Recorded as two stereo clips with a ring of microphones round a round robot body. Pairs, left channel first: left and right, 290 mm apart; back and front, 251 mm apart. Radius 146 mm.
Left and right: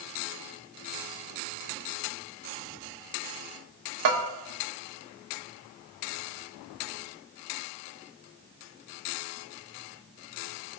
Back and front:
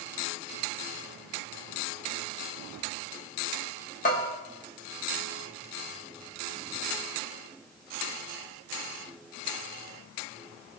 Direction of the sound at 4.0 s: 115° right.